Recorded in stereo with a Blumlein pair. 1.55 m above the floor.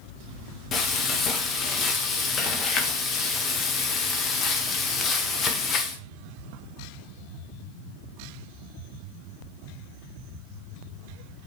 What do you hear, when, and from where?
0.7 s frying: 30° left, 1.3 m